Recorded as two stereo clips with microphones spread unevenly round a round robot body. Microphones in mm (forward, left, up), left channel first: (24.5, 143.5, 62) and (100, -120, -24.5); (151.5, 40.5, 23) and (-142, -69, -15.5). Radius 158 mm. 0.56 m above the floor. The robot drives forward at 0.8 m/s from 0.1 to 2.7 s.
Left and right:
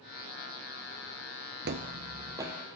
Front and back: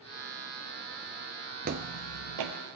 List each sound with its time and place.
1.6 s footsteps: 120° right, 0.5 m; by 2.5 s 170° right, 1.0 m